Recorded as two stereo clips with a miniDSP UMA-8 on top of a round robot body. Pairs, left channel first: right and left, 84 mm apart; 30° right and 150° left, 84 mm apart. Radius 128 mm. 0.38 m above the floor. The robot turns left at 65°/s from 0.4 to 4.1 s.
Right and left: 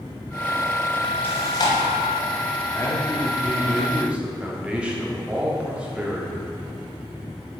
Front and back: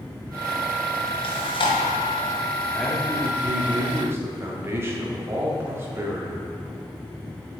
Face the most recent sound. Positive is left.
turn(degrees=155)